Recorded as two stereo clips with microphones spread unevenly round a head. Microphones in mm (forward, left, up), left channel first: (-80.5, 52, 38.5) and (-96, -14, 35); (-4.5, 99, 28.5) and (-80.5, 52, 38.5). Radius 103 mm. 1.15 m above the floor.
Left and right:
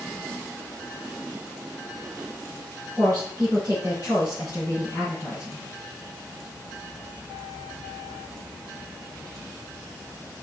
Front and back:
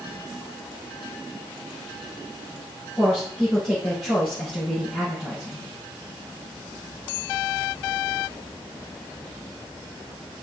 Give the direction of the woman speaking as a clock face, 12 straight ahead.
1 o'clock.